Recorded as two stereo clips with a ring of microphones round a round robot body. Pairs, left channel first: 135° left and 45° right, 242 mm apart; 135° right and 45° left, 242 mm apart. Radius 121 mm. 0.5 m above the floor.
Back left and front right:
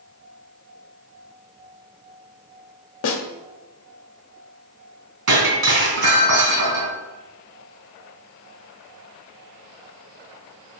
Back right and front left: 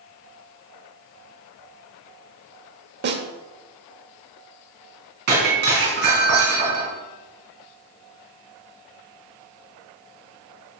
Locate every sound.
3.0 s a snare drum: 95° left, 1.0 m
5.3 s breaking glass: 5° right, 3 m